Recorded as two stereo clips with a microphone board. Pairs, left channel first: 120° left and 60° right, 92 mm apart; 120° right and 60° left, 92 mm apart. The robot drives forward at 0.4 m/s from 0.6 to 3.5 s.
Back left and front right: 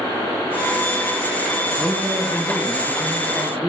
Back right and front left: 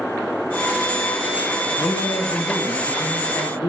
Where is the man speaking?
85° right, 1.0 m; by 3.7 s 135° right, 1.2 m.